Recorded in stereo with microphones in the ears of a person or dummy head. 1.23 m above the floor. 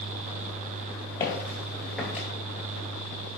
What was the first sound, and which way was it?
Footsteps, 15° left (ahead or behind).